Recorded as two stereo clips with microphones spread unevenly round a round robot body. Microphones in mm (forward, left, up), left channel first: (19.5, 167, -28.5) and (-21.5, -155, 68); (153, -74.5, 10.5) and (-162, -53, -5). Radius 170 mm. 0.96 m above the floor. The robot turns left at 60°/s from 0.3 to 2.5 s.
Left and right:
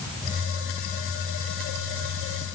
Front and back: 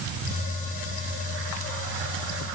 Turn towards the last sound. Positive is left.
No sound to turn to.